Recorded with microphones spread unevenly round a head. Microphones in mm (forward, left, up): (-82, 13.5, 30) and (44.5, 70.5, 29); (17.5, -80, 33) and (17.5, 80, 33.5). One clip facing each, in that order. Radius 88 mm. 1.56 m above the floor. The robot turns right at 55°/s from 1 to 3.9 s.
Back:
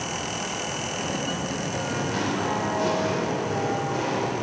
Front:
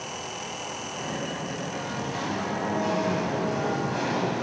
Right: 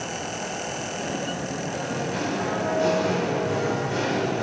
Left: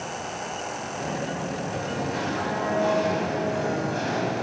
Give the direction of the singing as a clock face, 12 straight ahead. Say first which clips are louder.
Back 4 dB, even; 7 o'clock.